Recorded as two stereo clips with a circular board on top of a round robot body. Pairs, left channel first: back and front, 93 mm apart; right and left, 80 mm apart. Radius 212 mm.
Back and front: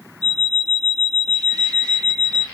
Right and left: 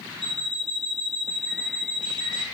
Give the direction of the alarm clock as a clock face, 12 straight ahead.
8 o'clock.